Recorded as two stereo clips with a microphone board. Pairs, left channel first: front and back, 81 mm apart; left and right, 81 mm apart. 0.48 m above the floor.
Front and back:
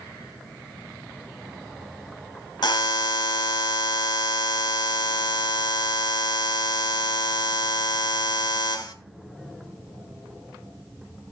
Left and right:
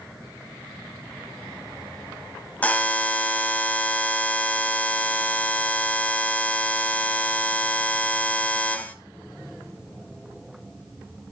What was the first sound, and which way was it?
A buzzer, 20° left.